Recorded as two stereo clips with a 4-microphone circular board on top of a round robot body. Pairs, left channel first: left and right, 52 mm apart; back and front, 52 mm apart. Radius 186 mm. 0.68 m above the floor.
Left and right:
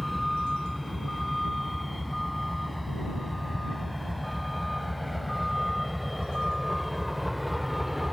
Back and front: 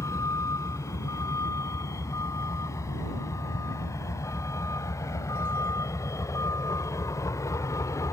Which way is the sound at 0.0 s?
Straight behind.